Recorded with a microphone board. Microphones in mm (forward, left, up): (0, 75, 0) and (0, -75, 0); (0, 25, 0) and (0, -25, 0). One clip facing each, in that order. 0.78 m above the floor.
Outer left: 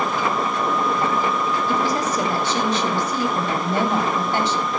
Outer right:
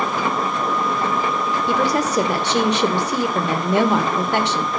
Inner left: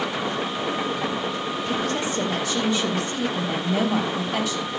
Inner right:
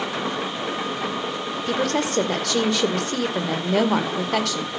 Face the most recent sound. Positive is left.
turn(degrees=-75)  # may be behind; listen again after turning